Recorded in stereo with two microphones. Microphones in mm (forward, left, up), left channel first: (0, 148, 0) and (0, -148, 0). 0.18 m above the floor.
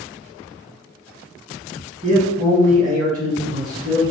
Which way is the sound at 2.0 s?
25° right (ahead or behind).